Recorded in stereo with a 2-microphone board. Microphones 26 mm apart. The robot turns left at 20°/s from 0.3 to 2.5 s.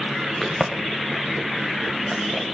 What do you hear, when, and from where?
0.4 s a crack: 5° left (ahead or behind), 3.5 m; by 2.5 s 35° right (ahead or behind), 3.5 m